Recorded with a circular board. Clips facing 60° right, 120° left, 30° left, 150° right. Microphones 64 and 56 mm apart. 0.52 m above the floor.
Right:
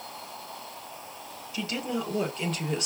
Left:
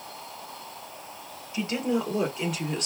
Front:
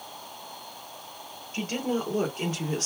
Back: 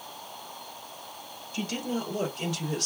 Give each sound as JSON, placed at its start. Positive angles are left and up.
{"t": 1.5, "sound": "a woman speaking", "azimuth_deg": 65, "distance_m": 1.9}